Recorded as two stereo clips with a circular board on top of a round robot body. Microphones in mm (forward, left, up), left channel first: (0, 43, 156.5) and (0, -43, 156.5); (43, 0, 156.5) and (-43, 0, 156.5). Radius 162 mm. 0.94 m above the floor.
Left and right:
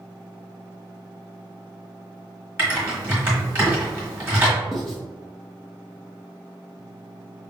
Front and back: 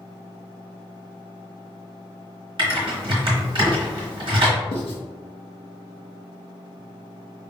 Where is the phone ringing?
No phone ringing in this recording.